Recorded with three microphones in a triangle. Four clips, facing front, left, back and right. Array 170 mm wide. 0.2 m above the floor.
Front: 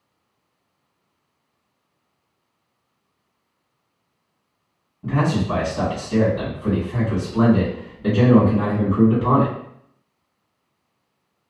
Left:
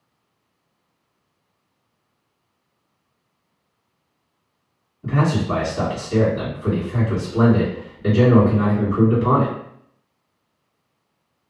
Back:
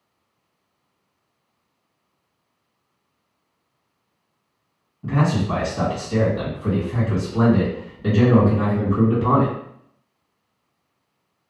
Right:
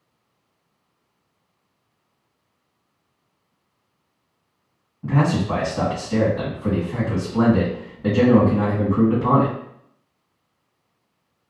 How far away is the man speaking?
About 1.7 m.